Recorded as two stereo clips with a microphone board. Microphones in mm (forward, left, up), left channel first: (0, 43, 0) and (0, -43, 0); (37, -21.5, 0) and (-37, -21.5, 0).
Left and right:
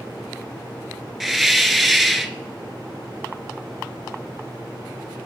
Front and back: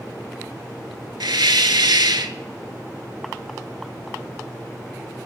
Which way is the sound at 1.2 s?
Straight behind.